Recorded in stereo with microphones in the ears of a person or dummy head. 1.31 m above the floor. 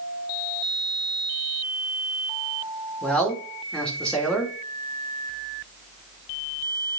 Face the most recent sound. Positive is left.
turn(degrees=5)  # may be behind; listen again after turning